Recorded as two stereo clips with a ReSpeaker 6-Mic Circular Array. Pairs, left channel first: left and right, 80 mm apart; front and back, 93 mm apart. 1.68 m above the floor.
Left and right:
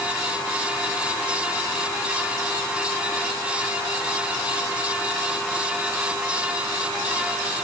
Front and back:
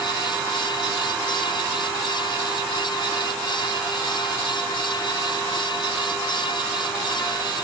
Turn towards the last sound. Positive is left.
No sound to turn to.